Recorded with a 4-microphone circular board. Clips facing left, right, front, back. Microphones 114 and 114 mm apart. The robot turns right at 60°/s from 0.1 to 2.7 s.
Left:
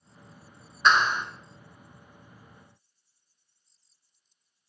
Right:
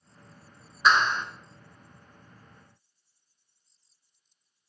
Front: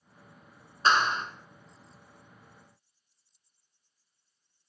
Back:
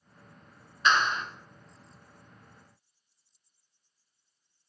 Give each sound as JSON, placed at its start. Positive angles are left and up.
{"t": 0.8, "sound": "a clap", "azimuth_deg": -5, "distance_m": 1.6}